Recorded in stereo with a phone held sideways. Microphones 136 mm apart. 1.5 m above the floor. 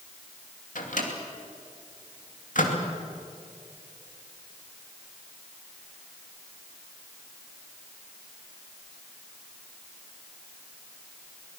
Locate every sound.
0.8 s a microwave: 70° left (ahead or behind), 2.5 m